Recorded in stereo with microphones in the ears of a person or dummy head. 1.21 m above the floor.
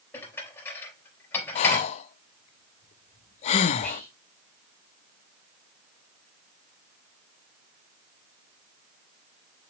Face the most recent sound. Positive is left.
turn(degrees=5)  # may be behind; listen again after turning